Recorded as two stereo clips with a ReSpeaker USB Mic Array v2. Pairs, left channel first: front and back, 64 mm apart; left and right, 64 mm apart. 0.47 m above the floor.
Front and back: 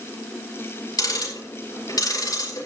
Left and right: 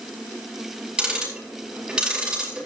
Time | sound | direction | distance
1.0 | ticking | 15° right | 4.5 m